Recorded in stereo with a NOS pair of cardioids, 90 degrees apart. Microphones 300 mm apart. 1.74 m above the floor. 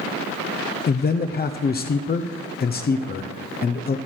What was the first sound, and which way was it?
A man speaking, 30° left.